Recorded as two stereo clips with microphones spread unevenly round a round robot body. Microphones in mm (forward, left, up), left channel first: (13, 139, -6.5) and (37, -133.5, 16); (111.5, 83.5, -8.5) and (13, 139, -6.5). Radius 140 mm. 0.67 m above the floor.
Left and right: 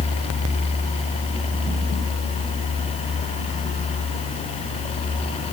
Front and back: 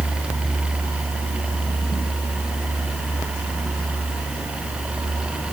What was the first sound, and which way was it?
Only background noise.